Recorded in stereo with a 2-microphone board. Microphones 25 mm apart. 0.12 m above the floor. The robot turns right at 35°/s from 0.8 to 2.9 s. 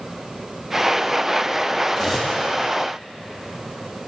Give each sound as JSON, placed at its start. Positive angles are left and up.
{"t": 1.9, "sound": "cutlery clinking", "side_deg": -15, "distance_m": 2.5}